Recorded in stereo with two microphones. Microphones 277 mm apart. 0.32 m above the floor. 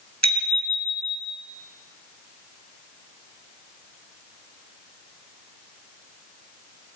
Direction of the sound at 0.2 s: 70° right (ahead or behind).